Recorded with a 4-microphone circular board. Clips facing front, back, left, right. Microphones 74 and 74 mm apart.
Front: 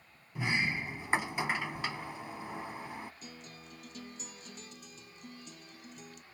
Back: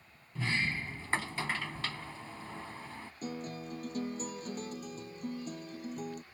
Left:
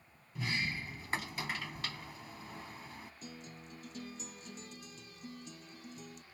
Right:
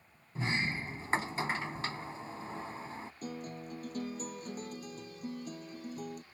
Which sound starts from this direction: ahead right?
A sliding door, at 0.3 s.